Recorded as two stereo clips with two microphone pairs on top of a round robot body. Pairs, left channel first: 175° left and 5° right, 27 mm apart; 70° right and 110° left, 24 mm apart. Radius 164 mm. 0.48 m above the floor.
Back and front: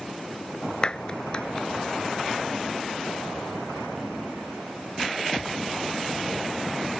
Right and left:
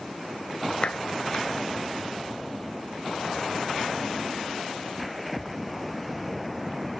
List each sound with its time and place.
0.8 s a clap: 120° right